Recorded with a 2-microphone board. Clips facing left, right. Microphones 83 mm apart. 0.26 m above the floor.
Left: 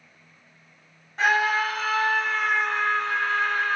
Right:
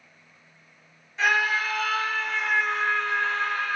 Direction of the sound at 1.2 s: 50° left (ahead or behind).